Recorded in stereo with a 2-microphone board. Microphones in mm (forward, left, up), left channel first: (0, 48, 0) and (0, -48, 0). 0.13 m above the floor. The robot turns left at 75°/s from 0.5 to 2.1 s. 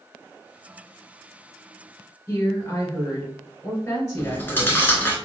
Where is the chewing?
20° left (ahead or behind), 1.1 m.